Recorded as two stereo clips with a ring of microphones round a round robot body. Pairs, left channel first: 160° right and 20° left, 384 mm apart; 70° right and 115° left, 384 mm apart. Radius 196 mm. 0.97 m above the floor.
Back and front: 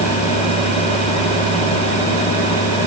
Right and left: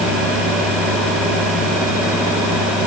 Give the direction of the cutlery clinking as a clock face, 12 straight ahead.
I don't hear cutlery clinking.